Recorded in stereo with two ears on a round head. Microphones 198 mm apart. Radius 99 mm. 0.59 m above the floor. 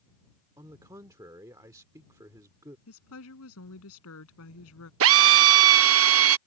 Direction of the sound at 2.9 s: 70° left (ahead or behind).